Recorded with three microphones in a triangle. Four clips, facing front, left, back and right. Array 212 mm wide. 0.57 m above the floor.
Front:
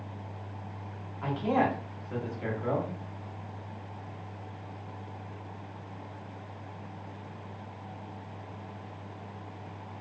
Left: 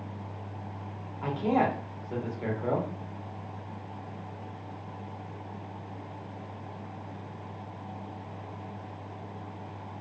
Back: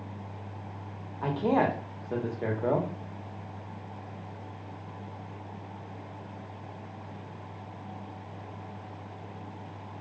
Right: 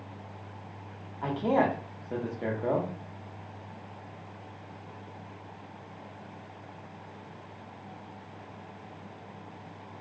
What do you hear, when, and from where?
1.2 s a man speaking: 155° right, 0.9 m